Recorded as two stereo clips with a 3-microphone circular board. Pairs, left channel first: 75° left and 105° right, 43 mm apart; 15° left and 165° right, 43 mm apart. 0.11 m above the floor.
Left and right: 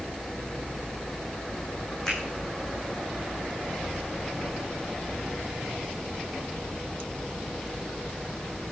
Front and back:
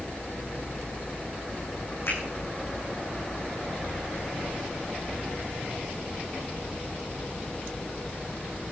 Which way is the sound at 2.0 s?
Straight ahead.